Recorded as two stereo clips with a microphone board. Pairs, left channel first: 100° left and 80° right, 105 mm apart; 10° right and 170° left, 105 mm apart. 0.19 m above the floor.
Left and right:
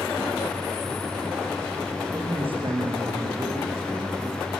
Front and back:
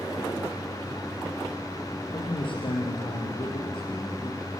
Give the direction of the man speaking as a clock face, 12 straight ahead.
2 o'clock.